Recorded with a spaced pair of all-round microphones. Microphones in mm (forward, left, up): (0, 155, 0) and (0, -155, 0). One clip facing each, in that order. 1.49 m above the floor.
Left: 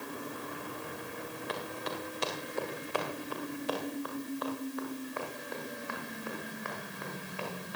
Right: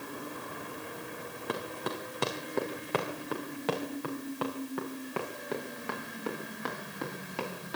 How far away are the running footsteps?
About 5.5 m.